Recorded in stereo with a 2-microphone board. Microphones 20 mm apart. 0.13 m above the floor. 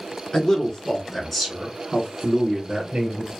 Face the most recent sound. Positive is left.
turn(degrees=-45)  # may be behind; listen again after turning